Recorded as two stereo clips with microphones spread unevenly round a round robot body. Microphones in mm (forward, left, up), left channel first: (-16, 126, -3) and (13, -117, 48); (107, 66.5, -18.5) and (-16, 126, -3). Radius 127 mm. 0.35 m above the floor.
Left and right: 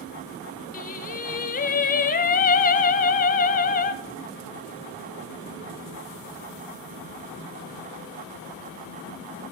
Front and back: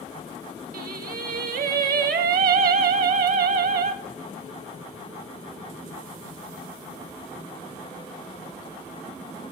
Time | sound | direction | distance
0.7 | singing | 150° left | 0.8 m